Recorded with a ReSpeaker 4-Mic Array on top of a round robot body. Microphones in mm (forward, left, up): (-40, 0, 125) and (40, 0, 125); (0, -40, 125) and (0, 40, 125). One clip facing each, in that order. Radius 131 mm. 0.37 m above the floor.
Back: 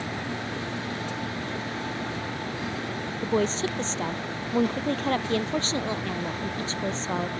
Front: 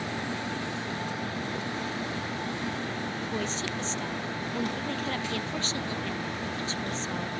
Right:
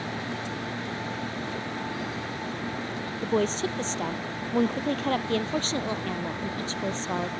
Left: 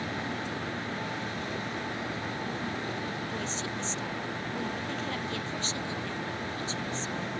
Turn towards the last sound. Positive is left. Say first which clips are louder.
# back 11 dB, right 9 dB
turn(degrees=-130)